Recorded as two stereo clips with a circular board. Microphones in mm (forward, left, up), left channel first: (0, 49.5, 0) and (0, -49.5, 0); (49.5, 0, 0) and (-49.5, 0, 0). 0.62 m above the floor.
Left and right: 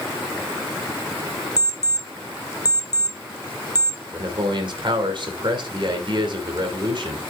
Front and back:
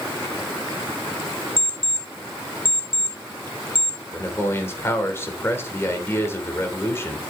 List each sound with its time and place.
1.6 s an alarm clock: 40° left, 1.4 m
4.1 s a man speaking: 60° right, 2.5 m